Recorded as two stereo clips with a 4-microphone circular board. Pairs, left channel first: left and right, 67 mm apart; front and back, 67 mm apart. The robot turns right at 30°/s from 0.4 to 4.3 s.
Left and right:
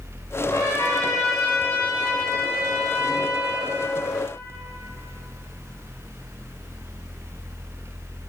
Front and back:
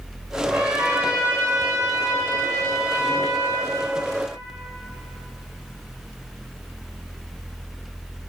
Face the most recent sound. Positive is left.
turn(degrees=-135)